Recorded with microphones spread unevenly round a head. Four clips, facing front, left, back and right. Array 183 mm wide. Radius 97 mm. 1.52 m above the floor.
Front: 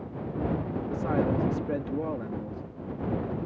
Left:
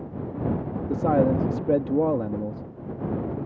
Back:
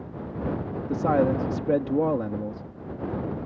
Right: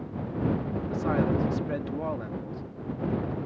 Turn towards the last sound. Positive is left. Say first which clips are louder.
# left 6 dB, back 6 dB
turn(degrees=120)